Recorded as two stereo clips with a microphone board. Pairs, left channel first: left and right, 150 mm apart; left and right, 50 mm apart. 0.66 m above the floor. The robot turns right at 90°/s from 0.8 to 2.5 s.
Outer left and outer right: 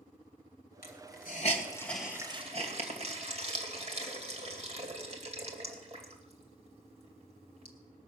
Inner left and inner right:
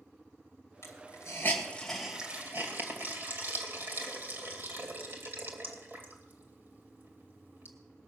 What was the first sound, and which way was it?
A hiss, 70° left (ahead or behind).